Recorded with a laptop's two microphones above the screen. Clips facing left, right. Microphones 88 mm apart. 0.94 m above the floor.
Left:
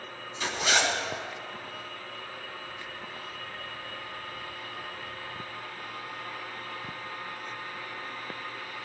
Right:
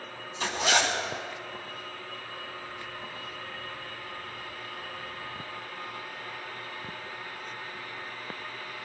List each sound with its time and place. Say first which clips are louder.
0.4 s a zipper: right 1 dB; 35° right (ahead or behind), 2.5 m